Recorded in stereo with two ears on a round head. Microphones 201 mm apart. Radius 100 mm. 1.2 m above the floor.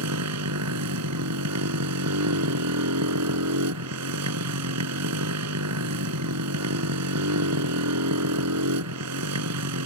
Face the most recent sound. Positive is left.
turn(degrees=-80)